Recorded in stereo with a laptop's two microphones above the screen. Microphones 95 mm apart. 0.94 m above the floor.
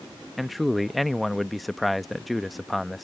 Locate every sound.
0.4 s a man speaking: centre (ahead or behind)